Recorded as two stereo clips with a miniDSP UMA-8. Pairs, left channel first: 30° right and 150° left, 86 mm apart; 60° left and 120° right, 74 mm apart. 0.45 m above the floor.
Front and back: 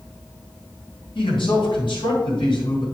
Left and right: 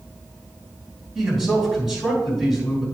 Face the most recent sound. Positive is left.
turn(degrees=-35)